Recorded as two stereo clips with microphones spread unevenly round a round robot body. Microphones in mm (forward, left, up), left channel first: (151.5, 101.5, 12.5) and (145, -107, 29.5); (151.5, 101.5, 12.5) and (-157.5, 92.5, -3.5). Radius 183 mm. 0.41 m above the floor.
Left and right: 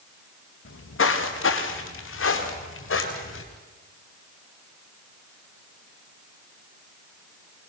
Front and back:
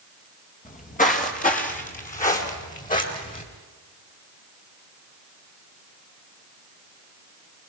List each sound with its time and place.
0.7 s footsteps: 65° left, 3.5 m